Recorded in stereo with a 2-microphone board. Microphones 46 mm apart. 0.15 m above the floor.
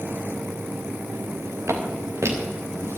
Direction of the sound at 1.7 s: 75° right (ahead or behind).